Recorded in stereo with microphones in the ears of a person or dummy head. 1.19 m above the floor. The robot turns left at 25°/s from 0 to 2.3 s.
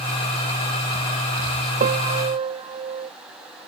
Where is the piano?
50° right (ahead or behind); by 3.1 s 35° right (ahead or behind).